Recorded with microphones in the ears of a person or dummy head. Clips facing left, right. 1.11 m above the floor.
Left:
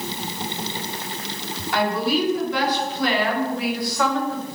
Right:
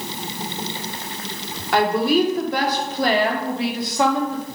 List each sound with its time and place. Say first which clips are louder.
1.7 s a woman speaking: right 4 dB; 60° right (ahead or behind), 2.5 m; by 4.4 s 15° right (ahead or behind), 1.8 m